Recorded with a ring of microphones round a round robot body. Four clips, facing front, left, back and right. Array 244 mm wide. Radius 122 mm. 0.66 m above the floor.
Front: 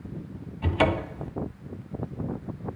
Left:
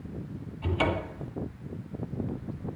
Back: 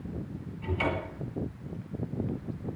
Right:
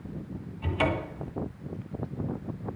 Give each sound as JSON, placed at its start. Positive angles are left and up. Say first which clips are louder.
{"t": 0.6, "sound": "a cupboard door", "louder": "even, front 7 dB", "azimuth_deg": 5, "distance_m": 1.9}